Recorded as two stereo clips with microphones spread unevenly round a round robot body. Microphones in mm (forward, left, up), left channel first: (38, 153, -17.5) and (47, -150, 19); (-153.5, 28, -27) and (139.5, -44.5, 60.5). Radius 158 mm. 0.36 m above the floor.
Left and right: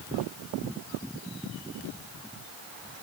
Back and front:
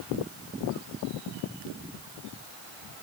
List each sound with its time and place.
Only background noise.